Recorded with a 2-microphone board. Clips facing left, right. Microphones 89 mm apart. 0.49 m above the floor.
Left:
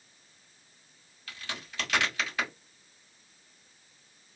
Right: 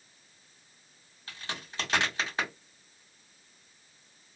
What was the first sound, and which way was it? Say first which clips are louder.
A crack: right 1 dB; 30° right (ahead or behind).